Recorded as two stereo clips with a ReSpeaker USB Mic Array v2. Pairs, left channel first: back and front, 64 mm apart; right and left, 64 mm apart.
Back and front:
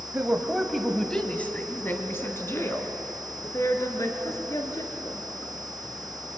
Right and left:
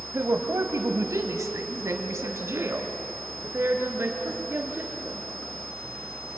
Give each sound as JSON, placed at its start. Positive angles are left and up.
{"t": 0.1, "sound": "a woman speaking", "azimuth_deg": 55, "distance_m": 1.6}